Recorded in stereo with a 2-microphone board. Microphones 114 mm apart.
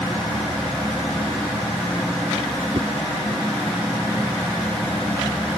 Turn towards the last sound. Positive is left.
turn(degrees=-60)  # may be behind; listen again after turning